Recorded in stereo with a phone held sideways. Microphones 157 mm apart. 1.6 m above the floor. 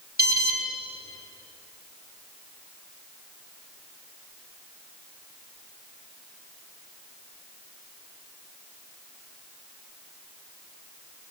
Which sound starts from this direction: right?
An alarm, at 0.2 s.